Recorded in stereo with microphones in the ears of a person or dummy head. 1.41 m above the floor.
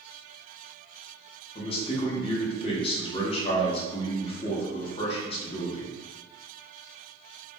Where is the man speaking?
30° left (ahead or behind), 1.1 m.